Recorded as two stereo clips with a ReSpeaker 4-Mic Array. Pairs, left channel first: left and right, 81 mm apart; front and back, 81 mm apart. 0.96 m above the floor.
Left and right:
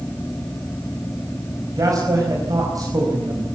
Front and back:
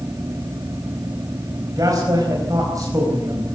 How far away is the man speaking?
About 4.5 m.